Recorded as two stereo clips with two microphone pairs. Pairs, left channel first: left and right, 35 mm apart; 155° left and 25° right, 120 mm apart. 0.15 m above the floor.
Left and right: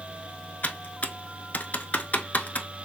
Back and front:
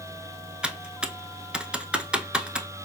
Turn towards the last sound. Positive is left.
turn(degrees=55)